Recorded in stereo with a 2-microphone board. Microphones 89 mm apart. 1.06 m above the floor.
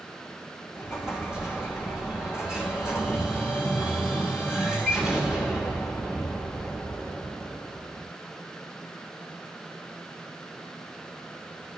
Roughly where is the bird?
I don't hear a bird.